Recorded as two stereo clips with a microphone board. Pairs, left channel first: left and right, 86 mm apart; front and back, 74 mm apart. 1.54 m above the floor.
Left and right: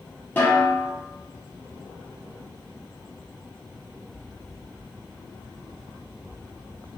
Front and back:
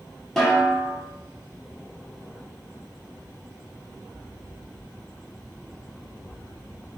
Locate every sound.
0.4 s a snare drum: 75° left, 1.1 m